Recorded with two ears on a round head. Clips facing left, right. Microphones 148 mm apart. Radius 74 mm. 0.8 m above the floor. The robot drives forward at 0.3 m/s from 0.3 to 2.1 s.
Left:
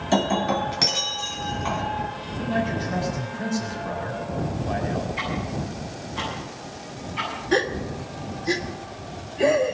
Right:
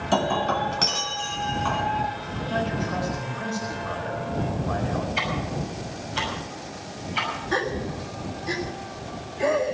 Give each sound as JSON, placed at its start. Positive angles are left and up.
{"t": 0.1, "sound": "breaking glass", "side_deg": 15, "distance_m": 2.0}
{"t": 2.4, "sound": "a man speaking", "side_deg": 20, "distance_m": 4.0}
{"t": 5.2, "sound": "ticking", "side_deg": -80, "distance_m": 6.0}
{"t": 7.5, "sound": "a gasp", "side_deg": 30, "distance_m": 1.1}